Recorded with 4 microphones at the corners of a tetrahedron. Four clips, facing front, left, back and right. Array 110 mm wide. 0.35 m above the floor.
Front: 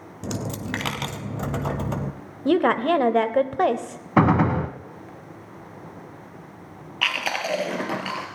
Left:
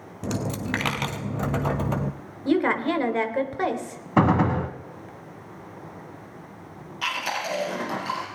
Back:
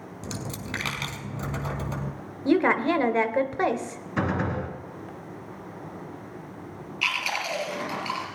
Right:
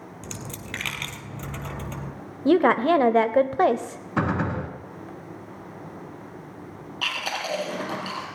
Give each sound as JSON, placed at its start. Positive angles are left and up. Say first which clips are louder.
{"t": 0.2, "sound": "a dropped coin", "louder": "left 12 dB, front 6 dB", "azimuth_deg": 55, "distance_m": 1.0}
{"t": 2.5, "sound": "a woman speaking", "louder": "right 4 dB, front 2 dB", "azimuth_deg": -60, "distance_m": 1.0}
{"t": 4.2, "sound": "a gunshot", "louder": "left 5 dB, front 9 dB", "azimuth_deg": 30, "distance_m": 1.2}
{"t": 7.0, "sound": "chewing", "louder": "left 2 dB, front 3 dB", "azimuth_deg": -5, "distance_m": 3.5}